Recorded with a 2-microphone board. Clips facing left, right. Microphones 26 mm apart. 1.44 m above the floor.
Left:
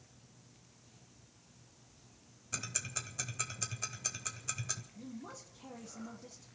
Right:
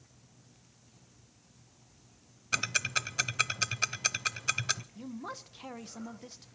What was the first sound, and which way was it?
Ticking, 70° right (ahead or behind).